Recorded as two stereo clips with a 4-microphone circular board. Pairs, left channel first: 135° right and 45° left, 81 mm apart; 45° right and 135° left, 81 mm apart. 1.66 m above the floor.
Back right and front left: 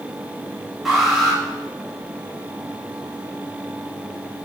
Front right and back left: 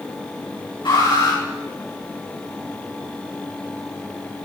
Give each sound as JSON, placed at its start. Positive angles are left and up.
{"t": 0.8, "sound": "an alarm", "azimuth_deg": -45, "distance_m": 8.0}